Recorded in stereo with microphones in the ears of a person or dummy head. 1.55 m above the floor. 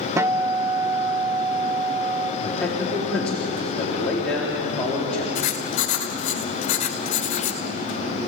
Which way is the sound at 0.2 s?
20° right (ahead or behind).